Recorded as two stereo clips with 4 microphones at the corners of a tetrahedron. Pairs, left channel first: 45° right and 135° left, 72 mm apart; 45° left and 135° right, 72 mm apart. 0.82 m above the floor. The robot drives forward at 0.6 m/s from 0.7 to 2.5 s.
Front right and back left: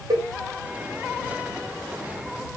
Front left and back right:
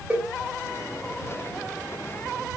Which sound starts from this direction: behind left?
A cowbell, at 0.1 s.